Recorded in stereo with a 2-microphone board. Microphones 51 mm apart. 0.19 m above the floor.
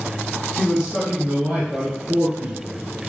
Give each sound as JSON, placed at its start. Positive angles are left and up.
{"t": 0.6, "sound": "a man speaking", "side_deg": 0, "distance_m": 2.0}